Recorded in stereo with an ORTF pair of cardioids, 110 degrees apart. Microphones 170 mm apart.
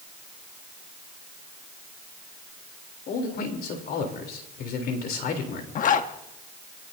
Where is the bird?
No bird in this recording.